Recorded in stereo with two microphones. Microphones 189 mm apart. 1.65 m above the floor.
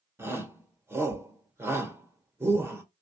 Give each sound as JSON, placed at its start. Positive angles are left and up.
{"t": 0.2, "sound": "a shout", "side_deg": -10, "distance_m": 1.0}